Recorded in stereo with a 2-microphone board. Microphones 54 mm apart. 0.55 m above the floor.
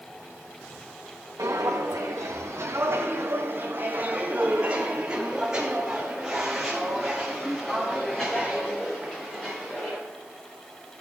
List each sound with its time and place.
1.4 s footsteps: 75° right (ahead or behind), 1.8 m; by 10.0 s 10° left (ahead or behind), 4 m